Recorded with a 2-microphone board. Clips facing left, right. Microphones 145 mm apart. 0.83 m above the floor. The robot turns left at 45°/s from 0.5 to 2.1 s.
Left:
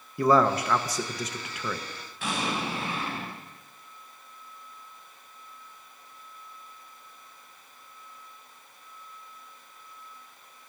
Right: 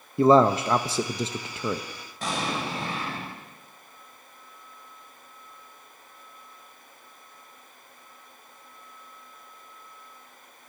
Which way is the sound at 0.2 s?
25° right (ahead or behind).